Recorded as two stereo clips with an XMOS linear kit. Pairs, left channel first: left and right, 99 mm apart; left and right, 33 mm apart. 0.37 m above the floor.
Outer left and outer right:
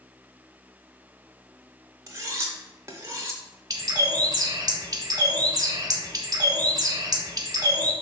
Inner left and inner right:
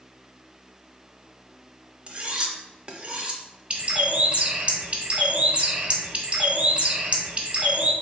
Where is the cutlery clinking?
30° right (ahead or behind), 0.6 m.